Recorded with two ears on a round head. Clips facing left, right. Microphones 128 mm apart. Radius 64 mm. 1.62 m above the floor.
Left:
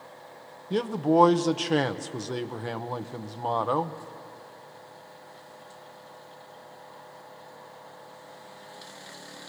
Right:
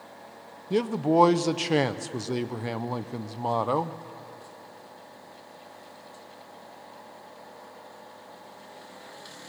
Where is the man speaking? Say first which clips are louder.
Even; 5° right (ahead or behind), 0.7 m.